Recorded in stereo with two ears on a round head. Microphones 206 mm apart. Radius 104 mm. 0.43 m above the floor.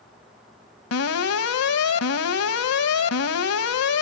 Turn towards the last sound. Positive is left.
turn(degrees=70)  # may be behind; listen again after turning